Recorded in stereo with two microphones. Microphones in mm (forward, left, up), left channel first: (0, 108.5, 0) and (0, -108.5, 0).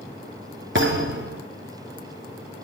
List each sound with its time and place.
0.8 s a thud: 60° right (ahead or behind), 4.5 m